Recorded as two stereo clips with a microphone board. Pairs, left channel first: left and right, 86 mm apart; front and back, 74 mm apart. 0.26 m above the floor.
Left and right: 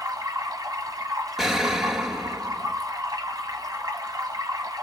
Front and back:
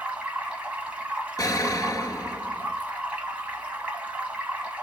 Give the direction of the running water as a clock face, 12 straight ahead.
4 o'clock.